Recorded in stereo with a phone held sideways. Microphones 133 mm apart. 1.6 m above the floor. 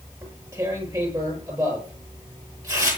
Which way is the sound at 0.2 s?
25° right (ahead or behind).